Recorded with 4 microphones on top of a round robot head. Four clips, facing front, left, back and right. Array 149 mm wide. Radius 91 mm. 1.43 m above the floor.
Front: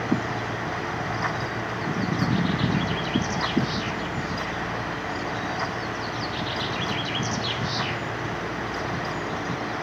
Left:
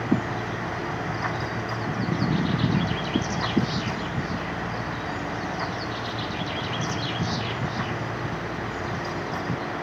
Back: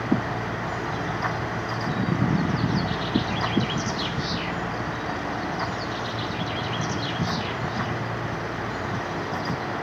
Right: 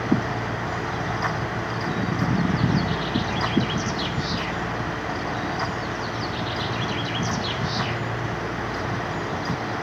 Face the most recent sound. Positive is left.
No sound to turn to.